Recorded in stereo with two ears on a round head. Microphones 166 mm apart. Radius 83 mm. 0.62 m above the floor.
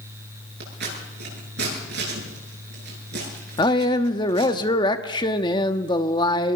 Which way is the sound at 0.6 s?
65° right (ahead or behind).